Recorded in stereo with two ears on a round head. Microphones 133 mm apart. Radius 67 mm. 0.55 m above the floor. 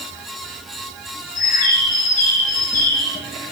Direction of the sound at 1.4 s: 60° left (ahead or behind).